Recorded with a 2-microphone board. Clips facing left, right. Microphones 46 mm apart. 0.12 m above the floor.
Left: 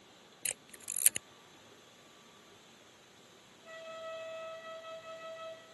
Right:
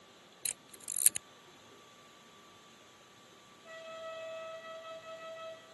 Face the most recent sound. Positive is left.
turn(degrees=45)  # may be behind; listen again after turning